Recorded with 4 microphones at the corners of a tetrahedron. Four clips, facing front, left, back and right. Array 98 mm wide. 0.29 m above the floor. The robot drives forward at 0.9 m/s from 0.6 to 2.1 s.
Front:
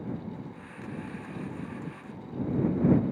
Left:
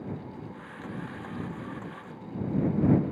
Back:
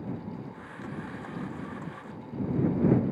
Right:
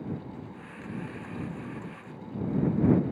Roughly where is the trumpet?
No trumpet in this recording.